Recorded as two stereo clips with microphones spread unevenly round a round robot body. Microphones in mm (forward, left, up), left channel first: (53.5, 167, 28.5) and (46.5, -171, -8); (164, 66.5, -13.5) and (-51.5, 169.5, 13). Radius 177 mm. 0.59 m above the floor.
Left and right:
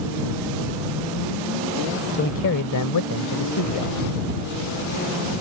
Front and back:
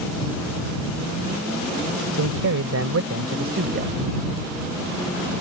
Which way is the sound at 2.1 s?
155° left.